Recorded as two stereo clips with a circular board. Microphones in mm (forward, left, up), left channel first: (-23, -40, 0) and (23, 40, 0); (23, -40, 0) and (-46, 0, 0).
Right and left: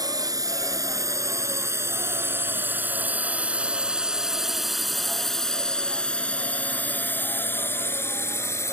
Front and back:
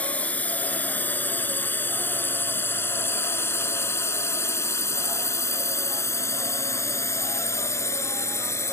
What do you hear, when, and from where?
0.0 s a drone: 35° left; by 8.7 s 70° right